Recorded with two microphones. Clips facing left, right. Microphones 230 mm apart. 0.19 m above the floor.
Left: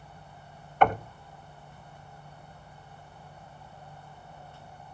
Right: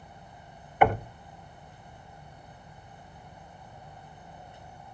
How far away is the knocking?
About 0.7 m.